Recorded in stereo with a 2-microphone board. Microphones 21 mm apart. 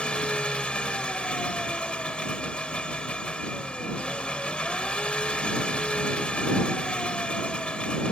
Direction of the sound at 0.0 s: 60° left (ahead or behind).